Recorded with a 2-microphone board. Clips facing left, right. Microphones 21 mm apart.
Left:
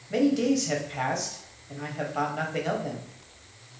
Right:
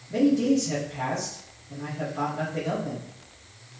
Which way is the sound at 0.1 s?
50° left (ahead or behind).